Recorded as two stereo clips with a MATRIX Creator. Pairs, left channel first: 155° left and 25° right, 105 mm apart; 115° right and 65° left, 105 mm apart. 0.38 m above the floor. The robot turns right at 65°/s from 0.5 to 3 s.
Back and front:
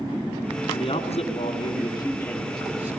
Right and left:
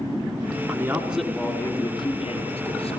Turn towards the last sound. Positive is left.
turn(degrees=-90)